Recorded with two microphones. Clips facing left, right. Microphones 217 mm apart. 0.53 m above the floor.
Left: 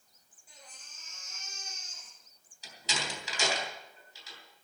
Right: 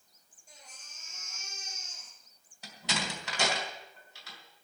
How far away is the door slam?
About 3 m.